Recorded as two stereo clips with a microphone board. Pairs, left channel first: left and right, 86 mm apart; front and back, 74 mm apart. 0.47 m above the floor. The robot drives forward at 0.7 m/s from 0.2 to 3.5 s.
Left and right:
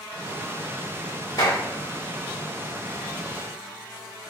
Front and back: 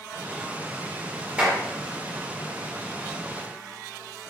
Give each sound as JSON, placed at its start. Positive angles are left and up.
{"t": 1.4, "sound": "a clap", "azimuth_deg": 110, "distance_m": 1.4}